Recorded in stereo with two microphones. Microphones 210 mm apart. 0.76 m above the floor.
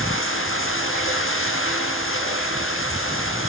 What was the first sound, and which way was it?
Running water, 80° left.